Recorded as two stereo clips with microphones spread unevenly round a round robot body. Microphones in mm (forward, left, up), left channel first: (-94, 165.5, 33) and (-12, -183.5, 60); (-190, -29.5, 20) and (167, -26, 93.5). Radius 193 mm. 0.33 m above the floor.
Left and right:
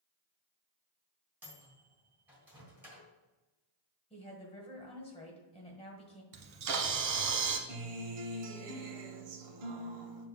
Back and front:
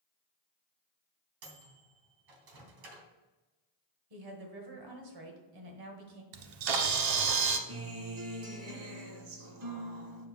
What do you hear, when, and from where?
1.4 s a microwave: 10° left, 1.5 m
4.1 s a woman speaking: 30° left, 1.5 m
6.3 s a camera shutter: 25° right, 0.8 m
7.7 s a guitar: 60° right, 1.1 m